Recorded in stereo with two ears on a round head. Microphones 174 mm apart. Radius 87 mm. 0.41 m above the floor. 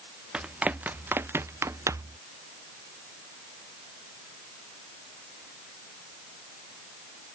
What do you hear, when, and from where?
0.3 s running footsteps: 5° right (ahead or behind); by 2.2 s 15° right (ahead or behind)